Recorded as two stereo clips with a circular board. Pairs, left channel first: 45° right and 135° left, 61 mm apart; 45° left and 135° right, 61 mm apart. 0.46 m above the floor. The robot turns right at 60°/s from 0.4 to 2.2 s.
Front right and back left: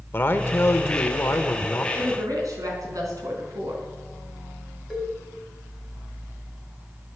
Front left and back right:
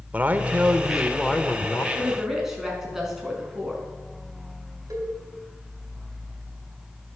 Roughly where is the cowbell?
Behind right.